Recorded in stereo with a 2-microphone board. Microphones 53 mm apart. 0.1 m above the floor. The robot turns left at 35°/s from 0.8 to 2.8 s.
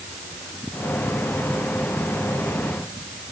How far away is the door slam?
No door slam in this recording.